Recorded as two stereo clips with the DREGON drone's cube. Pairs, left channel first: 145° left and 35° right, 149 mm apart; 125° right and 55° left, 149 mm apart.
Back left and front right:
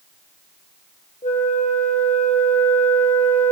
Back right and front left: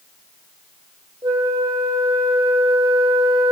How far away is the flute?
About 1.4 m.